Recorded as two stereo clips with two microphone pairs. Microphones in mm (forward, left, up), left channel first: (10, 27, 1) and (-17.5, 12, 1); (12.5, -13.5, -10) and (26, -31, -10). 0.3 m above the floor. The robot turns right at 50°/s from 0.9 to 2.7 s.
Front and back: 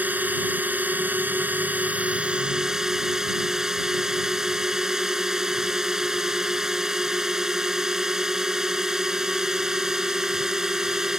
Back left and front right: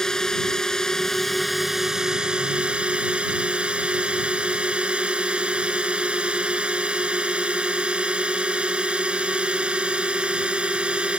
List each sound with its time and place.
0.0 s a drone: 170° right; by 11.2 s 80° right